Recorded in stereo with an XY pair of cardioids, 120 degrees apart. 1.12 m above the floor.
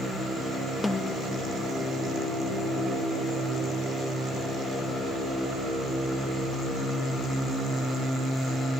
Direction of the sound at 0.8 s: 15° left.